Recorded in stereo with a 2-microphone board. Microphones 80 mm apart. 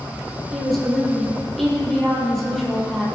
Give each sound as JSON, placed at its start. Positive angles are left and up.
{"t": 0.5, "sound": "a woman speaking", "side_deg": 5, "distance_m": 6.5}